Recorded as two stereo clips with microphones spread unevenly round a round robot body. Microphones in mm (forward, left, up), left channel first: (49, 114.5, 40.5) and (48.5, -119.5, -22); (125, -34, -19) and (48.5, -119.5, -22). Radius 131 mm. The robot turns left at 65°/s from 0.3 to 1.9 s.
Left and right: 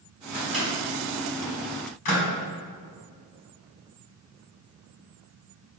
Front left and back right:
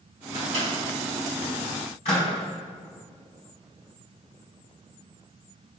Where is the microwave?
160° right, 2.0 m; by 2.2 s 100° left, 2.0 m.